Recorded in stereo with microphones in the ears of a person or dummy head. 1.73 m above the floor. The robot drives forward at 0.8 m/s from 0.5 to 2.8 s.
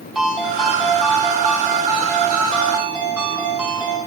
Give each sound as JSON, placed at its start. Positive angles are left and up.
{"t": 0.1, "sound": "a ringtone", "side_deg": 0, "distance_m": 4.5}